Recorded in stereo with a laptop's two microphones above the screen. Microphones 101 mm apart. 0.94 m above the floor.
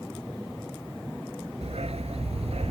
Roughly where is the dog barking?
Right.